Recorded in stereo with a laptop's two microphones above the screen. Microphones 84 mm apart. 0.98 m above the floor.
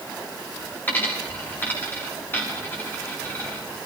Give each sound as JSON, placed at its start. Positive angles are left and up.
{"t": 0.9, "sound": "a dropped coin", "side_deg": 20, "distance_m": 7.0}